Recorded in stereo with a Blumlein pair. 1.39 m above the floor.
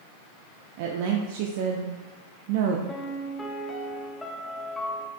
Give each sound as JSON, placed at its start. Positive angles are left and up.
{"t": 0.8, "sound": "a woman speaking", "azimuth_deg": -50, "distance_m": 0.6}
{"t": 2.9, "sound": "a piano", "azimuth_deg": 5, "distance_m": 0.8}